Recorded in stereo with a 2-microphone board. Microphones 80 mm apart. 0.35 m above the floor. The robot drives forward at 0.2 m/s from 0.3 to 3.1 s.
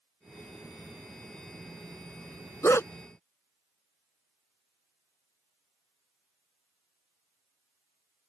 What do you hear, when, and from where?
2.6 s a dog barking: 35° left (ahead or behind)